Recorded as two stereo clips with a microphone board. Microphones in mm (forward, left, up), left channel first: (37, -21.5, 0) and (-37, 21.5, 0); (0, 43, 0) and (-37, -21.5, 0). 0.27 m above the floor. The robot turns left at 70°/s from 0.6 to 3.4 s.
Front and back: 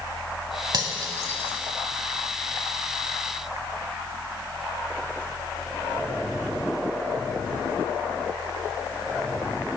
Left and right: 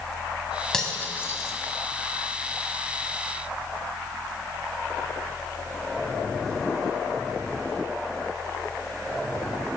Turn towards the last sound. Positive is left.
turn(degrees=-45)